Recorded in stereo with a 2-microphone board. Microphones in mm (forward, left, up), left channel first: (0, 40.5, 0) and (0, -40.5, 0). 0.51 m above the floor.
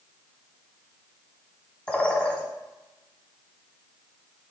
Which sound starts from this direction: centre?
A bird, at 1.9 s.